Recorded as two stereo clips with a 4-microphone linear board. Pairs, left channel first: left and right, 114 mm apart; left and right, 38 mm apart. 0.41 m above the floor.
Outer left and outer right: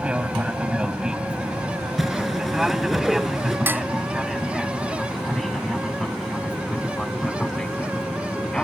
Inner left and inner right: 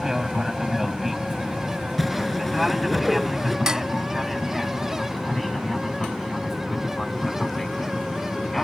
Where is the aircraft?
10° right (ahead or behind); by 8.6 s 5° left (ahead or behind).